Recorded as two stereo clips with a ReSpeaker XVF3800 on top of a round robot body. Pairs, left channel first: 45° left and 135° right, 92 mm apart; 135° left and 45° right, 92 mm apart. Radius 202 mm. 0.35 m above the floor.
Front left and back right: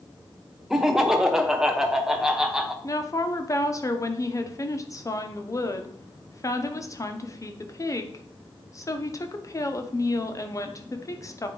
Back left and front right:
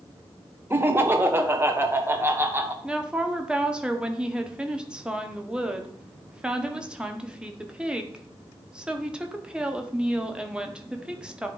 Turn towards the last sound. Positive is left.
turn(degrees=30)